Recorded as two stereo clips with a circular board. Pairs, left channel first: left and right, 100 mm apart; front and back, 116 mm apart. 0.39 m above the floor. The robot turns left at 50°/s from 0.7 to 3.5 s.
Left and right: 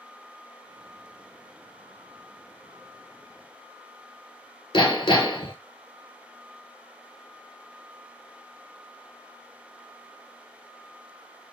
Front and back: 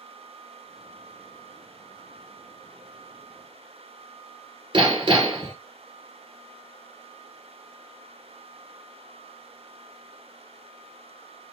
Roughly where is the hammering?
Behind left.